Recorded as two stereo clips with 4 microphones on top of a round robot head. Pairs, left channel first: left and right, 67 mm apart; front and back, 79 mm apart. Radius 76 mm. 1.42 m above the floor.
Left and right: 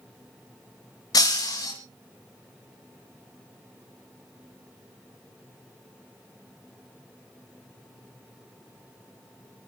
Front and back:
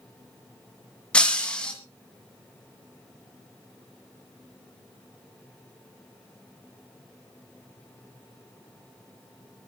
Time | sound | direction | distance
1.1 | breaking glass | 75° left | 1.9 m